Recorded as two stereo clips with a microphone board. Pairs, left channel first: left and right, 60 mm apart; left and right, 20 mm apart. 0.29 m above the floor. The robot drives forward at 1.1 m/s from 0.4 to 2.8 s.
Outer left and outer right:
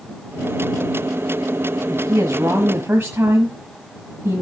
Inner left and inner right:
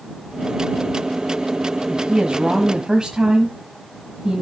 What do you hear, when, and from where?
1.9 s a woman speaking: 45° right (ahead or behind), 1.3 m; by 4.4 s 40° right (ahead or behind), 1.5 m